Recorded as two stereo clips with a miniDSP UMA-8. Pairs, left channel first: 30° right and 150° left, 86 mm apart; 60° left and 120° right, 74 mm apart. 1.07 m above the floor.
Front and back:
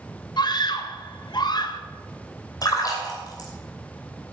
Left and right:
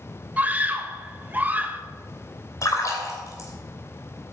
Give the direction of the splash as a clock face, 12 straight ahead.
12 o'clock.